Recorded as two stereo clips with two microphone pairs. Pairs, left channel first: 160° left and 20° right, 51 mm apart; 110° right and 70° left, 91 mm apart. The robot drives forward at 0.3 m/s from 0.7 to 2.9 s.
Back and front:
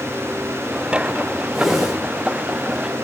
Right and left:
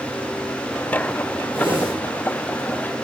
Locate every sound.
1.5 s a whoosh: 60° left, 3 m; by 1.9 s 65° left, 3 m